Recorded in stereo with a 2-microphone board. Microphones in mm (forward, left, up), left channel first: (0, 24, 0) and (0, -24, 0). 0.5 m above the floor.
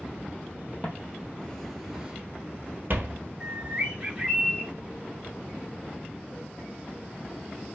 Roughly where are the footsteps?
Left.